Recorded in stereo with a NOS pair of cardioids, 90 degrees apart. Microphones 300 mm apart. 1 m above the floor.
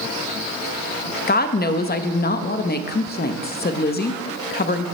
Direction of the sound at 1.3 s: 30° left.